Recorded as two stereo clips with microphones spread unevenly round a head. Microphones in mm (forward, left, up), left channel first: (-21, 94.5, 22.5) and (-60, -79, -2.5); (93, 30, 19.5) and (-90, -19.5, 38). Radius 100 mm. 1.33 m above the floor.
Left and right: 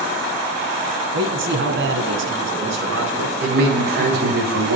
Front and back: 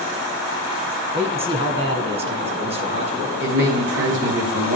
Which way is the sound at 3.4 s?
130° right.